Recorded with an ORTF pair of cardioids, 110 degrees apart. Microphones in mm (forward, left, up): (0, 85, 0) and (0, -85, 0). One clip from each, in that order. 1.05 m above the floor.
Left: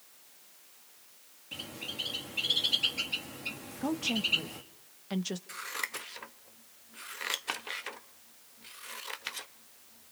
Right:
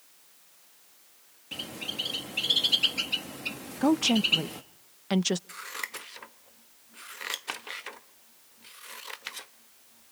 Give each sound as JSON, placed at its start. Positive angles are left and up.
{"t": 1.5, "sound": "a bird", "azimuth_deg": -30, "distance_m": 1.9}
{"t": 3.8, "sound": "a woman speaking", "azimuth_deg": -45, "distance_m": 0.6}
{"t": 5.5, "sound": "scissors", "azimuth_deg": -5, "distance_m": 1.0}